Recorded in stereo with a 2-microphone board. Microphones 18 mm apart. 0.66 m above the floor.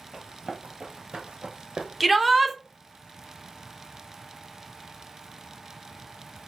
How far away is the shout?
About 0.6 m.